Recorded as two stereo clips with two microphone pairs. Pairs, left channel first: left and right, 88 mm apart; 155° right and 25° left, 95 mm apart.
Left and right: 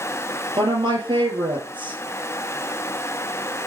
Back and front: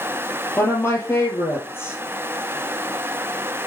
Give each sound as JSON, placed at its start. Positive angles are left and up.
{"t": 0.6, "sound": "a woman speaking", "azimuth_deg": -95, "distance_m": 5.0}